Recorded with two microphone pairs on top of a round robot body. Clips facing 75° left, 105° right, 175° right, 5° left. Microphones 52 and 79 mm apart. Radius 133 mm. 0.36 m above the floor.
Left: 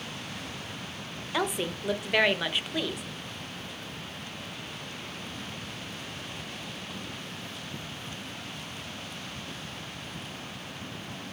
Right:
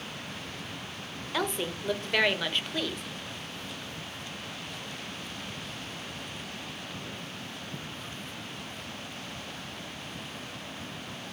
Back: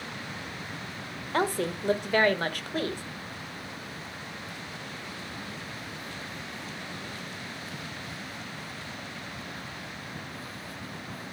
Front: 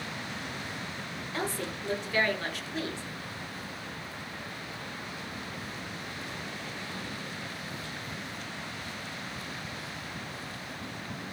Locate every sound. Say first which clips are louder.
1.3 s a woman speaking: left 1 dB, back 7 dB; 160° left, 1.5 m